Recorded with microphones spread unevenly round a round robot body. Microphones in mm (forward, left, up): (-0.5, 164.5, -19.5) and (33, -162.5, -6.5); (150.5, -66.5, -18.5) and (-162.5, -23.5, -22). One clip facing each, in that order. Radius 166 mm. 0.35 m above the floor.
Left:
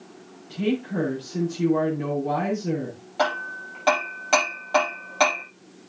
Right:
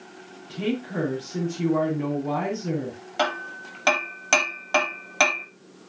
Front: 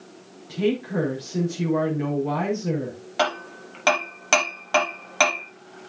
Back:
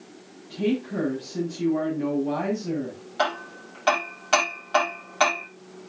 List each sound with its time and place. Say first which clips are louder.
0.5 s a woman speaking: left 2 dB, front 2 dB; 20° right, 5.5 m
3.2 s hammering: left 2 dB, front 2 dB; 30° right, 4 m